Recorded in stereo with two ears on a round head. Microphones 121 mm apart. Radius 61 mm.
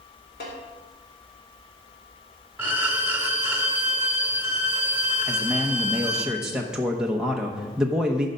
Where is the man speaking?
5° right (ahead or behind), 0.9 m.